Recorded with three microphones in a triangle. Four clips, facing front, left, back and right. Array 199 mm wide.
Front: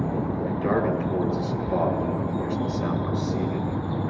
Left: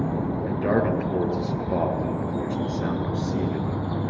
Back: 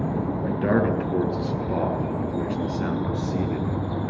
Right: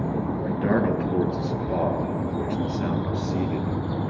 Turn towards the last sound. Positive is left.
turn(degrees=-140)